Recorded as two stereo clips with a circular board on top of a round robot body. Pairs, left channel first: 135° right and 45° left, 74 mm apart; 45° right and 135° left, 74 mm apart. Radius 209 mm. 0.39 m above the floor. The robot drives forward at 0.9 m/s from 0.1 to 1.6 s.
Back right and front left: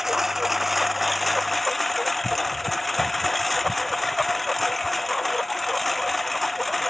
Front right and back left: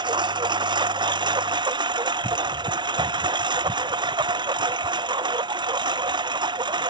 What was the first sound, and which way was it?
A lawn mower, 135° left.